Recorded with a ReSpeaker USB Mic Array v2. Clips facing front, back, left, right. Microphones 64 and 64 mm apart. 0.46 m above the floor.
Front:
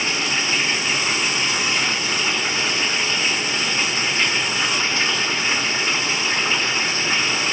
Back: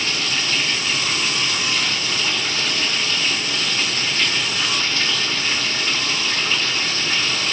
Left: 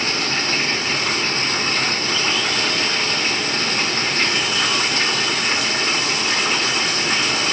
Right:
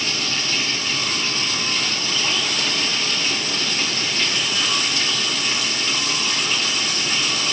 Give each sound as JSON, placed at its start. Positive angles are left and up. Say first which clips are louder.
{"t": 0.0, "sound": "running water", "louder": "front 1 dB, left 4 dB", "azimuth_deg": 65, "distance_m": 0.9}